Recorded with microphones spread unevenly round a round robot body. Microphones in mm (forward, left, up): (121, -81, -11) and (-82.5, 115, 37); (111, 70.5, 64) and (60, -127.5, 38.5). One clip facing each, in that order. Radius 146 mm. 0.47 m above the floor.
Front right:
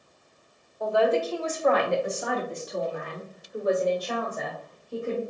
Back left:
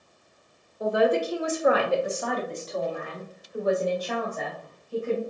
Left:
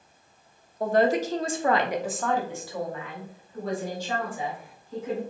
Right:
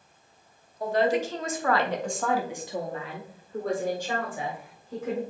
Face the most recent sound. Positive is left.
turn(degrees=-105)